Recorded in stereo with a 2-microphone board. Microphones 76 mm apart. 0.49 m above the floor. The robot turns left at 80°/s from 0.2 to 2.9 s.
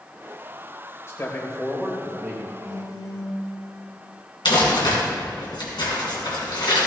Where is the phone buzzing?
40° left (ahead or behind), 2 m; by 3.4 s 65° left (ahead or behind), 2 m.